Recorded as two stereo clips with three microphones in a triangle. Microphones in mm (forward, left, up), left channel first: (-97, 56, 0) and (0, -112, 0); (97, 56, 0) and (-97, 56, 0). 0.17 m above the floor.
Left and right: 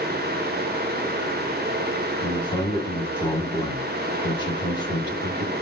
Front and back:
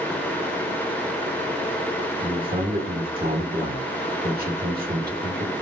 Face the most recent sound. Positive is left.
turn(degrees=180)